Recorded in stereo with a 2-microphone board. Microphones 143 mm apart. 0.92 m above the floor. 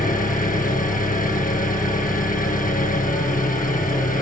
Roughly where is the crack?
No crack in this recording.